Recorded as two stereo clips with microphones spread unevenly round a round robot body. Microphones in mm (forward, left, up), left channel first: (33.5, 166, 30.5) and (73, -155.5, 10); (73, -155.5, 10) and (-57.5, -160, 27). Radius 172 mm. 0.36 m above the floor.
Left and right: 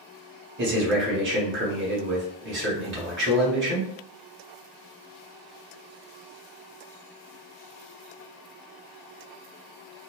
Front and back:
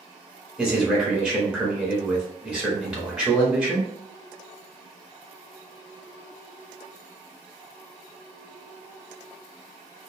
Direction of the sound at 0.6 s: 90° right.